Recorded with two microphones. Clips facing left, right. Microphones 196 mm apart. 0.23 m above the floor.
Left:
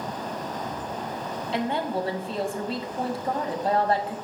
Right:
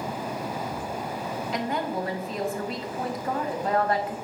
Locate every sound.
1.5 s a woman speaking: 30° left (ahead or behind), 1.0 m